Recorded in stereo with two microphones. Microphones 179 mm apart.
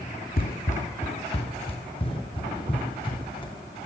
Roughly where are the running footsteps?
Left.